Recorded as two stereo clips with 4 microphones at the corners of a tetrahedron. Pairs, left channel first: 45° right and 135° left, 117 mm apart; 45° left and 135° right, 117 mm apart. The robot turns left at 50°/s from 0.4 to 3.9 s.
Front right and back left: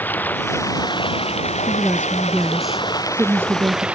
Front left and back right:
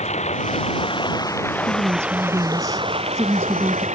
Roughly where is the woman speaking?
Right.